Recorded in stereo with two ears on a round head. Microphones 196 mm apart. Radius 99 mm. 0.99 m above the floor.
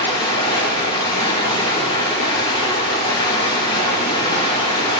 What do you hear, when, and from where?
0.0 s running water: 20° left (ahead or behind), 1.3 m